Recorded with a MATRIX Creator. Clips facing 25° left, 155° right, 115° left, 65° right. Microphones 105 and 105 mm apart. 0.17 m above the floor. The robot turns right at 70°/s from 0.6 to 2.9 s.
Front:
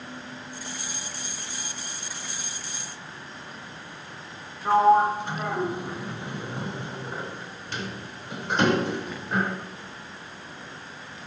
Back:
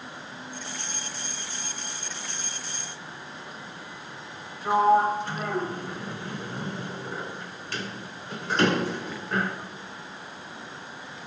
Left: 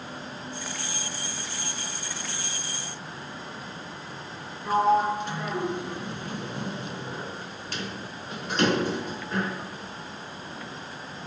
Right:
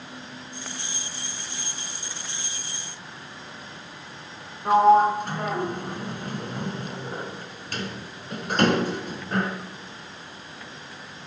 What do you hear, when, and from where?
4.7 s a sliding door: 45° right, 1.1 m